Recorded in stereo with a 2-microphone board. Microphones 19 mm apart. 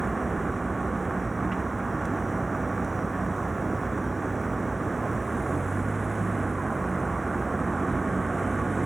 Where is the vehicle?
Centre (ahead or behind).